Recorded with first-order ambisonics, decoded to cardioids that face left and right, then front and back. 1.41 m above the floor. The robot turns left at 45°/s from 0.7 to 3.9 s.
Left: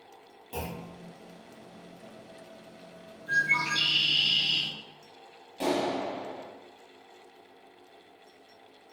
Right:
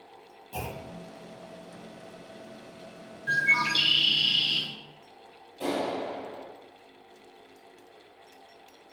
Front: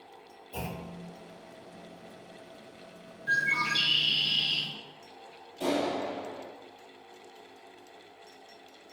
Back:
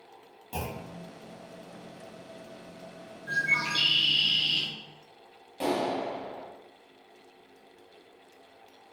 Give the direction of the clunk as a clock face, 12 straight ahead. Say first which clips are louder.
Right 1 dB, back 2 dB; 7 o'clock.